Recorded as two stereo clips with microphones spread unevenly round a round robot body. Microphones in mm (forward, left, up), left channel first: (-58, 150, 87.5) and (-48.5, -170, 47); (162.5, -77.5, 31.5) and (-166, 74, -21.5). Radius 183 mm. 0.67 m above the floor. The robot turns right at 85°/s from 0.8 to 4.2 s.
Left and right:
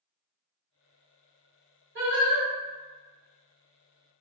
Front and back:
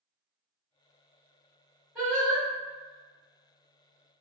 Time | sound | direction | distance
1.9 | singing | 120° right | 1.6 m